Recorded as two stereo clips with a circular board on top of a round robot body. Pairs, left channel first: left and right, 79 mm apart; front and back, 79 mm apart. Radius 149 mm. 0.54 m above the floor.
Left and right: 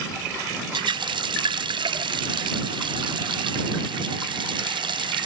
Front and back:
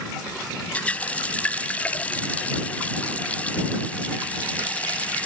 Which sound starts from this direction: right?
A running tap, at 0.7 s.